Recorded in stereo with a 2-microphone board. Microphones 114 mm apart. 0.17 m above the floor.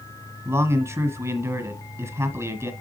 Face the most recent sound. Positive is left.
turn(degrees=-25)  # may be behind; listen again after turning